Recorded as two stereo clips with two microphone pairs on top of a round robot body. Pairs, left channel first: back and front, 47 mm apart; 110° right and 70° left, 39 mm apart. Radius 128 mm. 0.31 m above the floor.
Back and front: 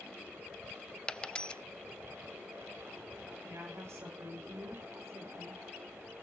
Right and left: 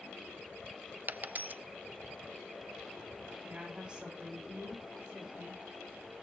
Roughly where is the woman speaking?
Ahead.